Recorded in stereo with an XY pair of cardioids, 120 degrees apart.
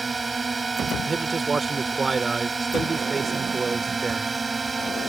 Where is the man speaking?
30° right.